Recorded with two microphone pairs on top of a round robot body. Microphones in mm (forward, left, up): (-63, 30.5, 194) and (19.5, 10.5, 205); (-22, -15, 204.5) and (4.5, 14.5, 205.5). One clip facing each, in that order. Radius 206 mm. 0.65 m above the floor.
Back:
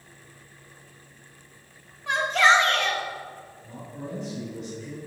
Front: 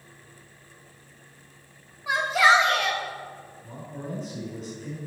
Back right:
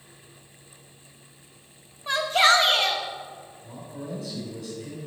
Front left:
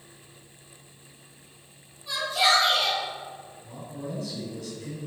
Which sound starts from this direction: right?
A shout, at 2.1 s.